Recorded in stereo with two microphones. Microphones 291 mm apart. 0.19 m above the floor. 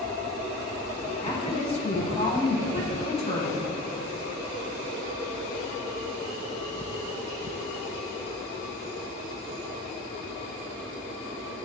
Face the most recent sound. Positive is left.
turn(degrees=20)  # may be behind; listen again after turning